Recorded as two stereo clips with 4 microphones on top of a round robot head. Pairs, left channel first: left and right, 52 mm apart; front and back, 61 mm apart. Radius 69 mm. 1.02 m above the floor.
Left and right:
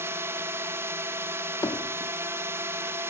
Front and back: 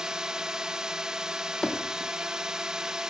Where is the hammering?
85° left.